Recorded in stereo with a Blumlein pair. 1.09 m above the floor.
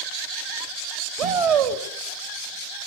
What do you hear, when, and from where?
1.2 s a shout: 45° right, 2.5 m